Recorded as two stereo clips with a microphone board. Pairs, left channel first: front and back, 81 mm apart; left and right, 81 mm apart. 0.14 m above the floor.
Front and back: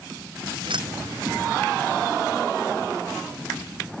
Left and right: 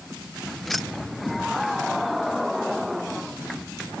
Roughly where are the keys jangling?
Behind.